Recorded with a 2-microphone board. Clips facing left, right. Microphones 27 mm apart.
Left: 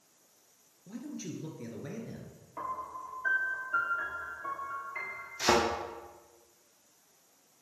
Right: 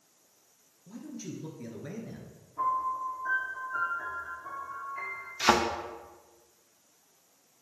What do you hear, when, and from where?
0.9 s a man speaking: 20° left (ahead or behind), 1.7 m; by 2.4 s 10° right (ahead or behind), 1.5 m
2.6 s a piano: 50° left (ahead or behind), 2.5 m
5.4 s a thud: 25° right (ahead or behind), 1.6 m